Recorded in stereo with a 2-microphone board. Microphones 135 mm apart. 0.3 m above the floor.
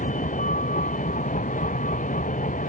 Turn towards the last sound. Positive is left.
turn(degrees=75)  # may be behind; listen again after turning